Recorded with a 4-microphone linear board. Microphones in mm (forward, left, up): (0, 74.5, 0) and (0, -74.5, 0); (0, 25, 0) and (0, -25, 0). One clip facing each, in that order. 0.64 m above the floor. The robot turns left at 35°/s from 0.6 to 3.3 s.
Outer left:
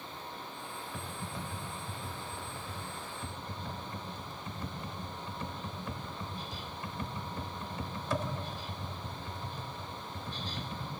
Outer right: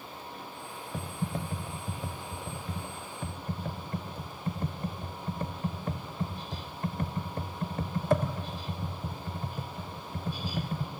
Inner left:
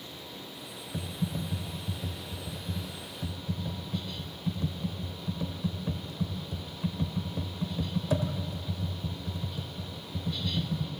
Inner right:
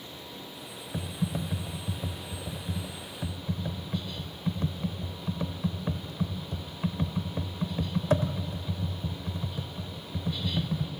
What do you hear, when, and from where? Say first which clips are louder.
0.9 s typing on a keyboard: outer right 9 dB, inner right 2 dB; 45° right (ahead or behind), 0.8 m; by 10.9 s 55° right (ahead or behind), 0.8 m